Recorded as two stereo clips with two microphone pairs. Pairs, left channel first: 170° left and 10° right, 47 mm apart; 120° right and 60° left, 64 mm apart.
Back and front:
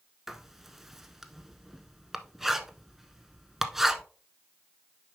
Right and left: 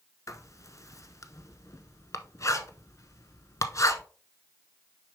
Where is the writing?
90° right, 0.7 m.